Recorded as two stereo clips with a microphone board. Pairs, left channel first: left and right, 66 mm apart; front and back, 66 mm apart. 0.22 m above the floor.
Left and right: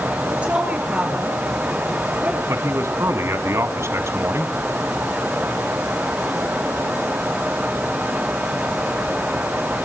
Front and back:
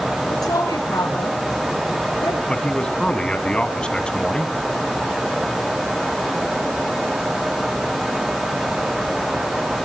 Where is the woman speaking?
20° right, 4 m.